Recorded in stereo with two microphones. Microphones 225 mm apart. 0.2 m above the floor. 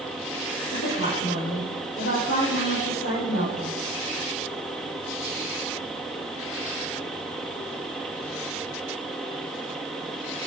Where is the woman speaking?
75° left (ahead or behind), 5.5 m.